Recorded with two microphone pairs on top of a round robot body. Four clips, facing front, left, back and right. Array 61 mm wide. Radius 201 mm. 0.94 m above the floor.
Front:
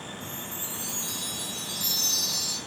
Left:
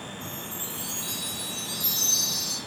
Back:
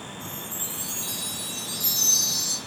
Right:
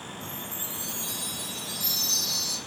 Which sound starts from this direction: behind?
A chime, at 0.2 s.